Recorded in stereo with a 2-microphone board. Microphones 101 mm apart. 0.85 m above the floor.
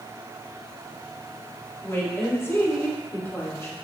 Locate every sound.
1.8 s a woman speaking: 30° left (ahead or behind), 2 m